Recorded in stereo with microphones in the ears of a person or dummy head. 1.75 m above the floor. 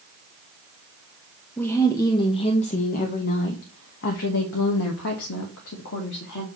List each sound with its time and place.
1.6 s a woman speaking: 5° left (ahead or behind), 1.1 m; by 6.5 s 75° left (ahead or behind), 2.5 m